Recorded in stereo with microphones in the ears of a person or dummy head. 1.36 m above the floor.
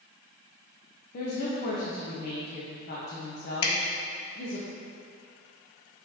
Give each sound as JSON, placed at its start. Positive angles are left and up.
{"t": 1.1, "sound": "a woman speaking", "side_deg": 50, "distance_m": 1.1}
{"t": 3.6, "sound": "dripping", "side_deg": 85, "distance_m": 1.5}